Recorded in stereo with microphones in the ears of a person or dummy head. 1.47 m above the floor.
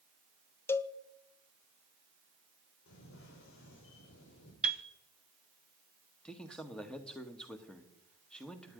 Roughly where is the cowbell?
Centre.